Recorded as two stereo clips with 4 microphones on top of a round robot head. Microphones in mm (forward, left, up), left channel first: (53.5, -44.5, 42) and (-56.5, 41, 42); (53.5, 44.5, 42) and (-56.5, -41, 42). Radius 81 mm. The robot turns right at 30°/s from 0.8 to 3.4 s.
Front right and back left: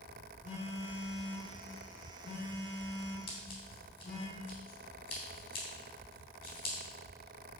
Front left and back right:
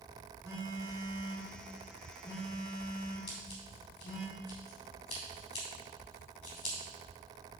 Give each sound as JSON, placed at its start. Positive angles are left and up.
{"t": 0.4, "sound": "a phone buzzing", "azimuth_deg": -75, "distance_m": 4.0}
{"t": 3.3, "sound": "scissors", "azimuth_deg": -10, "distance_m": 3.0}